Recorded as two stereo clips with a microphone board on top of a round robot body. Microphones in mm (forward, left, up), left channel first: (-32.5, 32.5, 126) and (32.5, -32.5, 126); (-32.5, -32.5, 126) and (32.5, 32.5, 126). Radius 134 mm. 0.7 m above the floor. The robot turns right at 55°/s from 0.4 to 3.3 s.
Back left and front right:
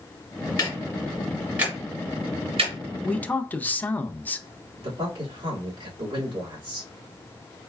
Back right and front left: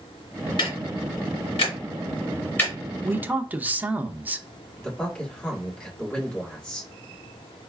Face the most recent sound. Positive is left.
turn(degrees=-60)